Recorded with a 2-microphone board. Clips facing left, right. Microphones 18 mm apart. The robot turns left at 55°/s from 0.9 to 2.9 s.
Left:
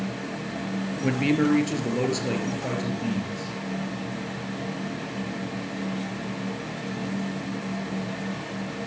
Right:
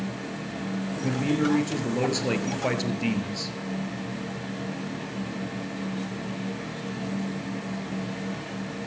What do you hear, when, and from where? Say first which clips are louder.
1.0 s a man speaking: left 3 dB; 55° left, 2.5 m; by 3.5 s 50° right, 2.5 m